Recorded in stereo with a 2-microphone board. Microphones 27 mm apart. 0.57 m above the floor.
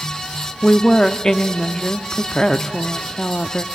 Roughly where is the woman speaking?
Left.